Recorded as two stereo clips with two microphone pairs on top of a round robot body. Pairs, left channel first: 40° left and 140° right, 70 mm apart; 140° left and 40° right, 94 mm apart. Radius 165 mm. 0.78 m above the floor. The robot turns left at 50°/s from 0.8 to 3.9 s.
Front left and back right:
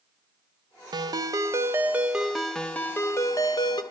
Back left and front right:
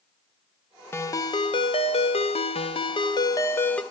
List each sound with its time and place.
0.9 s a ringtone: 155° right, 0.7 m; by 3.8 s 60° left, 0.7 m